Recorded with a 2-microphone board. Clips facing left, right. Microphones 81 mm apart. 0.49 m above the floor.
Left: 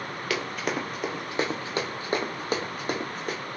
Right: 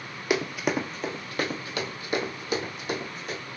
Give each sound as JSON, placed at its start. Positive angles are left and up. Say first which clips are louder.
{"t": 0.3, "sound": "running footsteps", "louder": "right 4 dB", "side_deg": -20, "distance_m": 0.6}